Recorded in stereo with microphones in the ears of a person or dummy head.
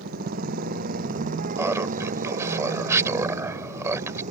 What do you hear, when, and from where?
0.0 s a motorcycle: 50° right (ahead or behind); by 4.3 s 45° right (ahead or behind)
1.6 s laughter: 15° right (ahead or behind)